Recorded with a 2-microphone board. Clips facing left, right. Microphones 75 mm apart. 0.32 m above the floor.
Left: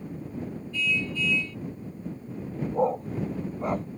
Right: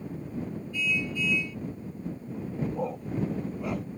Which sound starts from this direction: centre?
A car horn, at 0.7 s.